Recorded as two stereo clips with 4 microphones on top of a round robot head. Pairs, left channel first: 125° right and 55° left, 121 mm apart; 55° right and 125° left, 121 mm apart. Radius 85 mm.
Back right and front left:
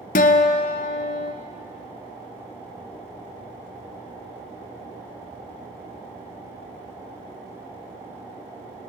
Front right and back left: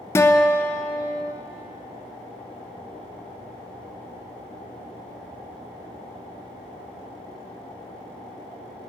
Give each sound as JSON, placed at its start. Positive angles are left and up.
{"t": 0.1, "sound": "a guitar", "azimuth_deg": -125, "distance_m": 0.6}